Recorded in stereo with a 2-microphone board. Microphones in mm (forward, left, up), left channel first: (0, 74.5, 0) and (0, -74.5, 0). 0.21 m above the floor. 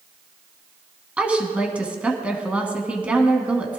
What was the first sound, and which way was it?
A woman speaking, 10° right (ahead or behind).